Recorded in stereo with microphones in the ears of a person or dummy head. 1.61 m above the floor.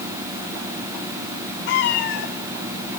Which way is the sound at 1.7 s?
60° left (ahead or behind).